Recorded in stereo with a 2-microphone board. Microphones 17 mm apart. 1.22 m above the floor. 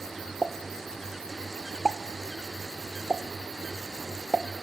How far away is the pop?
About 1.1 m.